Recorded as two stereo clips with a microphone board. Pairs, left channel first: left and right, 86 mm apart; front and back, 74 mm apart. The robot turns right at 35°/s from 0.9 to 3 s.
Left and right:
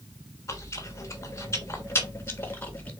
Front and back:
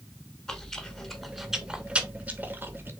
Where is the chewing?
80° left, 0.9 m; by 2.9 s 150° left, 0.9 m.